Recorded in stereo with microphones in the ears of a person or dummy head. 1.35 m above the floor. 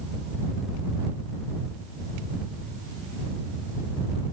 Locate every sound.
Only background noise.